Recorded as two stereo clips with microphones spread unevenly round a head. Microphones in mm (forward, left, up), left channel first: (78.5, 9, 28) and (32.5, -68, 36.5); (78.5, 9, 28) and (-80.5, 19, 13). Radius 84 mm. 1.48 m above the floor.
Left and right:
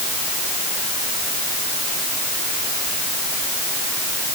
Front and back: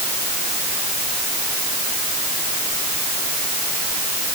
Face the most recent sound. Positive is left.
No sound to turn to.